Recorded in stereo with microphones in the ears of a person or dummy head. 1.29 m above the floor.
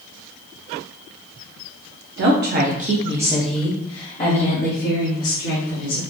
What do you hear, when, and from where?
2.2 s a woman speaking: 55° right (ahead or behind), 0.9 m; by 6.0 s 60° left (ahead or behind), 1.7 m